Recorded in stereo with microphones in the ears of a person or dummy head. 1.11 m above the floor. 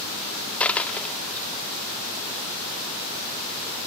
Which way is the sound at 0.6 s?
10° left (ahead or behind).